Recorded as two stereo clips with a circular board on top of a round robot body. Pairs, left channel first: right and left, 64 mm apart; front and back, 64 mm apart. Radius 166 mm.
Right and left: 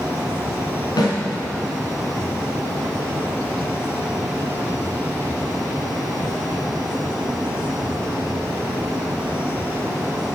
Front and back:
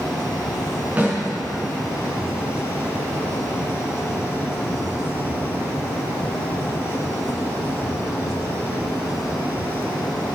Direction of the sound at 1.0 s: 110° right.